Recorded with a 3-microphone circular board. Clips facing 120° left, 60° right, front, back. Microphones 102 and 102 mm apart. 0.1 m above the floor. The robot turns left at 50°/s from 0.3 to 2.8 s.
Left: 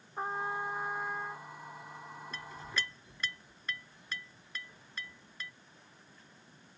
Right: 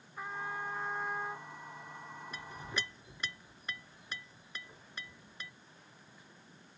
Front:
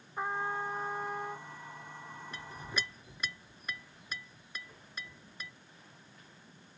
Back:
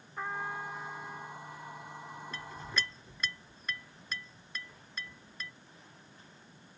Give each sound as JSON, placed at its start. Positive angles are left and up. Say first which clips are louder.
{"t": 0.2, "sound": "a trumpet", "louder": "left 5 dB, front 3 dB", "azimuth_deg": 70}
{"t": 2.3, "sound": "a clink", "louder": "left 1 dB, back 1 dB", "azimuth_deg": -20}